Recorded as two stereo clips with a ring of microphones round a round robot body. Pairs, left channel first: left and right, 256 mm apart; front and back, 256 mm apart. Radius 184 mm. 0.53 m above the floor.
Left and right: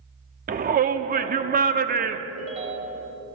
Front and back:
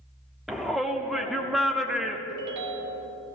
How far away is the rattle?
I don't hear a rattle.